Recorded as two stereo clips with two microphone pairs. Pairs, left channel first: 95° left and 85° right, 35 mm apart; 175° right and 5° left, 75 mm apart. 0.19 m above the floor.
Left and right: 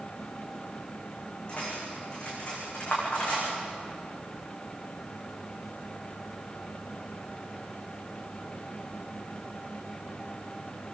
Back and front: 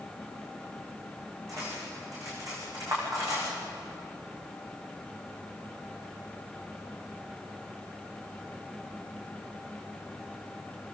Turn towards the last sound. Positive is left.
turn(degrees=40)